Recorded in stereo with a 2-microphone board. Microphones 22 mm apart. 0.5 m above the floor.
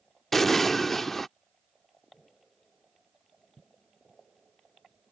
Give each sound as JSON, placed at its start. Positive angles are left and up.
{"t": 0.3, "sound": "an explosion", "side_deg": 5}